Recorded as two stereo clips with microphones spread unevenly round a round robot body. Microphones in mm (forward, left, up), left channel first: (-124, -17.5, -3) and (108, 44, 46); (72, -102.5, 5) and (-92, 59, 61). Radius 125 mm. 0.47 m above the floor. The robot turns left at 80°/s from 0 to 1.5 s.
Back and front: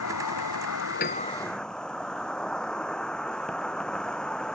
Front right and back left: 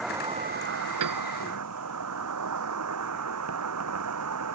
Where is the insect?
135° right; by 4.5 s 105° left.